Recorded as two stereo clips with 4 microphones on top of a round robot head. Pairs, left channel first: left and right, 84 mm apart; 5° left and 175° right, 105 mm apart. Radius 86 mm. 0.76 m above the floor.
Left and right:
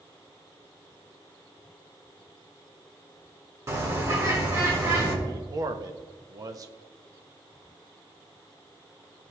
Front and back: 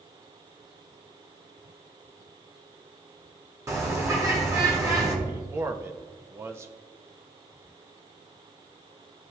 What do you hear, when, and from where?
3.7 s a bird: 130° right, 1.5 m
5.2 s a man speaking: 120° right, 0.6 m